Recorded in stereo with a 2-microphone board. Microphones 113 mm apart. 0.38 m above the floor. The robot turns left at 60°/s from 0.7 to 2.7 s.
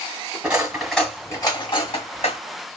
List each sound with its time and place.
0.4 s cutlery clinking: 10° right (ahead or behind), 1.5 m; by 2.4 s 70° left (ahead or behind), 1.5 m